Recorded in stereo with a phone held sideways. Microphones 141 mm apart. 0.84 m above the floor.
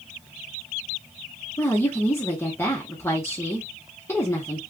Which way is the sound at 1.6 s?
20° left (ahead or behind).